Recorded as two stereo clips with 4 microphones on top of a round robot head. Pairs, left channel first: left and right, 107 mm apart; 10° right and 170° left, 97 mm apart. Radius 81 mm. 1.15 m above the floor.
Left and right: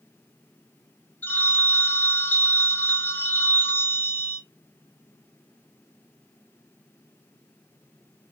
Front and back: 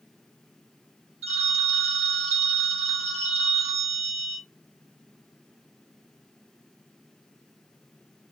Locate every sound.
1.2 s a phone ringing: 160° left, 1.1 m